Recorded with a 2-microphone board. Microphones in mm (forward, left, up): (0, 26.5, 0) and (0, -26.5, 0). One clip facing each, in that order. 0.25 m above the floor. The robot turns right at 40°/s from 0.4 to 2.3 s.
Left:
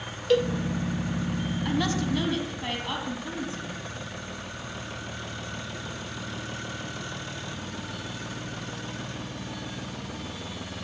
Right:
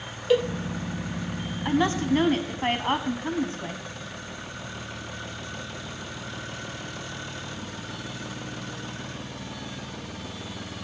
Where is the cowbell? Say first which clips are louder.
Right 1 dB; 10° right (ahead or behind), 0.6 m.